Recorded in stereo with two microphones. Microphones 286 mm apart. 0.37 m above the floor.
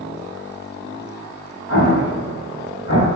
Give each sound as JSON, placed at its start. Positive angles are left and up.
{"t": 1.7, "sound": "an explosion", "side_deg": 60, "distance_m": 1.8}